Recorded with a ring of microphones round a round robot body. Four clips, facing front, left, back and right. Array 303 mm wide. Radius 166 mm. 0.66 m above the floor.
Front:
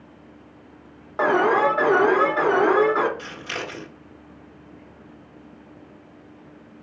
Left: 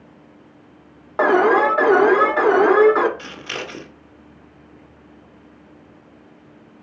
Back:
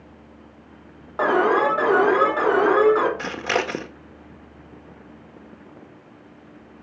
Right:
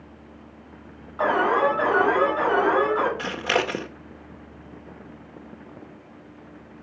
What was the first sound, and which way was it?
An alarm, 85° left.